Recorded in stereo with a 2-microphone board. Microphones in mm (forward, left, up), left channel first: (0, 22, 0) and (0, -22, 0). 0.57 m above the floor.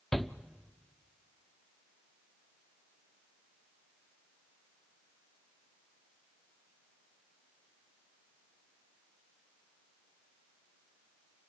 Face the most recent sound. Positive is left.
turn(degrees=5)  # may be behind; listen again after turning